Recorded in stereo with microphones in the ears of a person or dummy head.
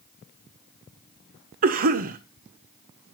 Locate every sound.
1.6 s a cough: 45° right (ahead or behind), 1.1 m